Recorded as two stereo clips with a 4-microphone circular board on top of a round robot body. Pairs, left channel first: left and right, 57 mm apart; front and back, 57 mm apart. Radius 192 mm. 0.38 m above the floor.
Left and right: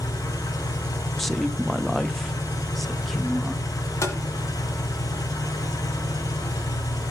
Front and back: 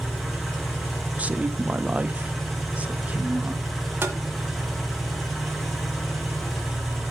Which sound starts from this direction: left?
An engine running, at 0.0 s.